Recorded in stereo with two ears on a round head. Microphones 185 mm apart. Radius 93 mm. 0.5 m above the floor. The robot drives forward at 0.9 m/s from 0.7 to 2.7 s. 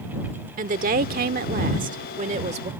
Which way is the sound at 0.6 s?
40° right (ahead or behind).